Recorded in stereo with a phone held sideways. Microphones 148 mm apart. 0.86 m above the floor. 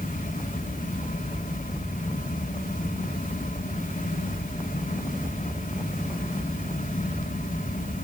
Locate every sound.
0.0 s a fan: 65° left (ahead or behind), 2.5 m